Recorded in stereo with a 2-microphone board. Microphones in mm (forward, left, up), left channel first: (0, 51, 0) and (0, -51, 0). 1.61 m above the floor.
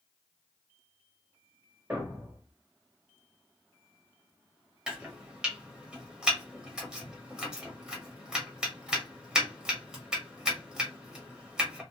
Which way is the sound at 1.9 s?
15° right (ahead or behind).